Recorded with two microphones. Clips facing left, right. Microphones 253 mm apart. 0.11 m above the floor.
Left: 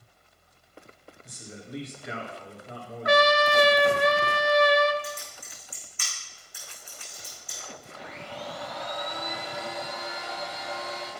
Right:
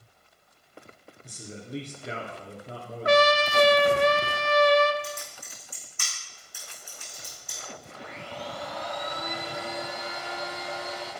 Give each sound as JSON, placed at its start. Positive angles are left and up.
{"t": 1.2, "sound": "a man speaking", "side_deg": -30, "distance_m": 1.9}
{"t": 3.0, "sound": "a trumpet", "side_deg": -30, "distance_m": 0.7}
{"t": 5.0, "sound": "typing on a keyboard", "side_deg": -45, "distance_m": 4.5}
{"t": 8.0, "sound": "a blender", "side_deg": -30, "distance_m": 4.0}